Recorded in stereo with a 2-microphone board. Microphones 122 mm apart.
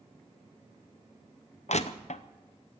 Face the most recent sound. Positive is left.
turn(degrees=70)  # may be behind; listen again after turning